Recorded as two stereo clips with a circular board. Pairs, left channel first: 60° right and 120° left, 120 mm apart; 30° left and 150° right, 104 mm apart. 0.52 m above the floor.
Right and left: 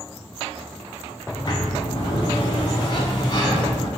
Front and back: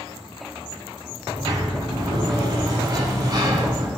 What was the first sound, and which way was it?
A sliding door, 105° right.